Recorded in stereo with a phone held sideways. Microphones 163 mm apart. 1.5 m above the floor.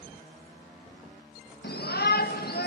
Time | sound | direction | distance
1.6 | a shout | 80° left | 1.8 m